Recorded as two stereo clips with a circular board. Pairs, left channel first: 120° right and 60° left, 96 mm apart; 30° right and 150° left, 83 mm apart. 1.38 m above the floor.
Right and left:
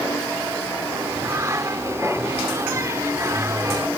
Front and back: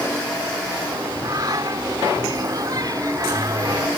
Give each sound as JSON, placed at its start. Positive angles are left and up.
{"t": 0.9, "sound": "singing", "azimuth_deg": 115}